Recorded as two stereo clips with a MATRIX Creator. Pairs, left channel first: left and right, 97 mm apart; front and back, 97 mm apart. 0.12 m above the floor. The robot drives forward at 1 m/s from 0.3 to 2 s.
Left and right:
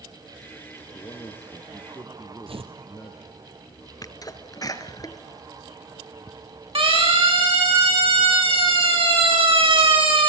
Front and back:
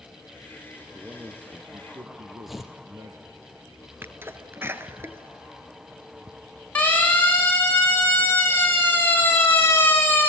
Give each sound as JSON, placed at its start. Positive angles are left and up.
{"t": 0.9, "sound": "a man speaking", "azimuth_deg": 110, "distance_m": 2.0}
{"t": 2.5, "sound": "tearing paper", "azimuth_deg": -90, "distance_m": 2.0}
{"t": 4.0, "sound": "a sneeze", "azimuth_deg": 120, "distance_m": 2.0}
{"t": 6.8, "sound": "a siren", "azimuth_deg": -75, "distance_m": 7.5}